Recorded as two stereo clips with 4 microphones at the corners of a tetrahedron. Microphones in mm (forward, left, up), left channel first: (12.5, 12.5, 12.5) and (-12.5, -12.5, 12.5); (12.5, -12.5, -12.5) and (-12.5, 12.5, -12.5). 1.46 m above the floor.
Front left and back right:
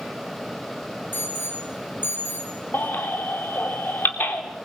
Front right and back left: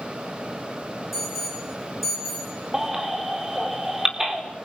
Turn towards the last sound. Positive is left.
turn(degrees=60)